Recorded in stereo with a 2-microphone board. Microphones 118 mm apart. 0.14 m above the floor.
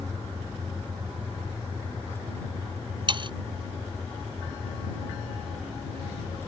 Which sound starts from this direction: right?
Sawing, at 3.1 s.